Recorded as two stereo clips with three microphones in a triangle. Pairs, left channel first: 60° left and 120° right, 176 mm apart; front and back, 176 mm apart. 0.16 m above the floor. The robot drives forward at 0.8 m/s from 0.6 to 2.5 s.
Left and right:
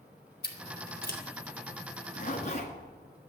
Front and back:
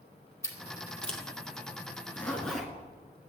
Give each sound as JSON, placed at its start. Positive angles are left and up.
{"t": 0.4, "sound": "scissors", "azimuth_deg": 75, "distance_m": 2.0}
{"t": 2.0, "sound": "a zipper", "azimuth_deg": 70, "distance_m": 1.7}